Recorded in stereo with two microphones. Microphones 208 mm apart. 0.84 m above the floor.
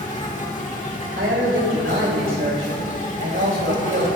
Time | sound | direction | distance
0.0 | an insect | 35° left (ahead or behind) | 1.6 m
1.2 | a man speaking | 70° right (ahead or behind) | 3 m